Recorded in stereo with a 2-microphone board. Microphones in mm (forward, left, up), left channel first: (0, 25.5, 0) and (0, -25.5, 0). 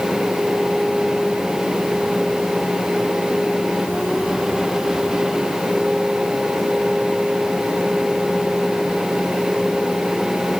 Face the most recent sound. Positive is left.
No sound to turn to.